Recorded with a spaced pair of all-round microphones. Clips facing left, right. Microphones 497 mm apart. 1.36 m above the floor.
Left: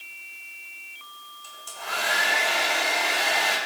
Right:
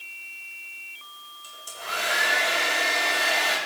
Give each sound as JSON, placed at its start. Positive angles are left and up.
{"t": 1.4, "sound": "a hair dryer", "side_deg": 10, "distance_m": 5.5}